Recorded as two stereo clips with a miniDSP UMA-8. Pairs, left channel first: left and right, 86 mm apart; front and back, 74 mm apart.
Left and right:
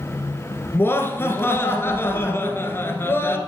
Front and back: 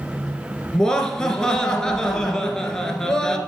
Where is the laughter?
75° left, 1.2 m.